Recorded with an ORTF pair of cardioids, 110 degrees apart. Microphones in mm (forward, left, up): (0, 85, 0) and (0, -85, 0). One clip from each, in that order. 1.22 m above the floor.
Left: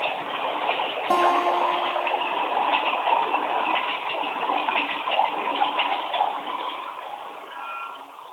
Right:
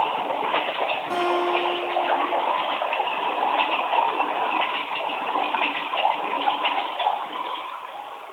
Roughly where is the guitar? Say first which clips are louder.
Left 6 dB; ahead left.